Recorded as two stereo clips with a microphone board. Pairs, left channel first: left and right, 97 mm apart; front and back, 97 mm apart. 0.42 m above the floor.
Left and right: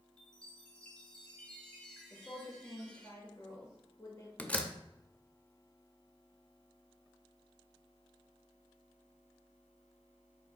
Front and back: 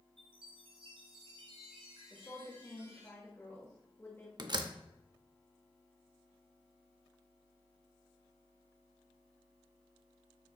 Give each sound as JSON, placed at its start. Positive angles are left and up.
{"t": 0.2, "sound": "a chime", "azimuth_deg": 170, "distance_m": 1.7}
{"t": 2.1, "sound": "a woman speaking", "azimuth_deg": 55, "distance_m": 1.6}
{"t": 4.4, "sound": "a door slam", "azimuth_deg": 160, "distance_m": 0.7}